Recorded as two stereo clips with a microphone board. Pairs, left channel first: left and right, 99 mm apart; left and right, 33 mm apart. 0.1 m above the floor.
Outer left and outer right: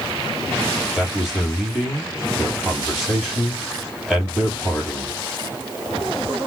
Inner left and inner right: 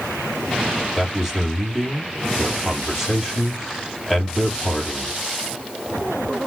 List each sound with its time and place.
0.9 s a man speaking: 5° right (ahead or behind), 2.5 m